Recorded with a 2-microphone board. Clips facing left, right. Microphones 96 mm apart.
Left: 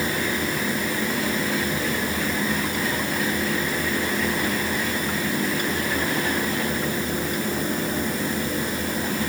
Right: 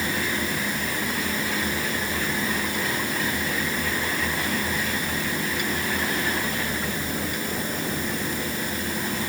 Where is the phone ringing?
No phone ringing in this recording.